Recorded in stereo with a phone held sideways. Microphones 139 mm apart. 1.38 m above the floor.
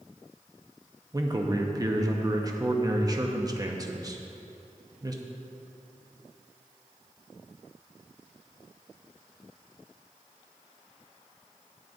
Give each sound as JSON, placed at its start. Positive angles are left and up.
{"t": 1.1, "sound": "a man speaking", "side_deg": -25, "distance_m": 0.9}